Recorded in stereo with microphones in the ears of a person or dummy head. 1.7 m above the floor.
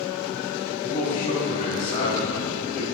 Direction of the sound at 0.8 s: 45° left (ahead or behind).